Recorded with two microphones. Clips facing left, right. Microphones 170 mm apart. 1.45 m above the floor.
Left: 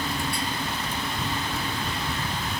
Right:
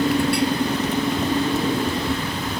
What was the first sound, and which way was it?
A motorcycle, 65° right (ahead or behind).